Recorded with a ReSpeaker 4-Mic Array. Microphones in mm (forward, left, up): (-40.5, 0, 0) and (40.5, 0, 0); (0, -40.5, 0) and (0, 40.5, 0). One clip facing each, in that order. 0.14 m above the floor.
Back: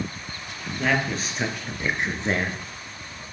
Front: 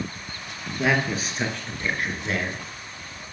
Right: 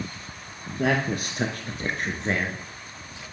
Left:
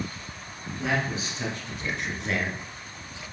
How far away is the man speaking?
About 2.5 m.